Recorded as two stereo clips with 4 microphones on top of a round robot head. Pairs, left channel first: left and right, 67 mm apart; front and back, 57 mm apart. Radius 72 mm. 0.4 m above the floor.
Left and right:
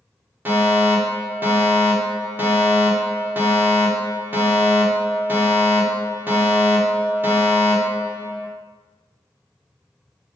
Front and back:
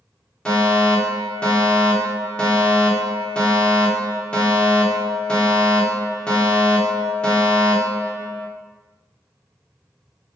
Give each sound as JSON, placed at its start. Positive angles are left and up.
{"t": 0.5, "sound": "a fire alarm", "azimuth_deg": -60, "distance_m": 2.0}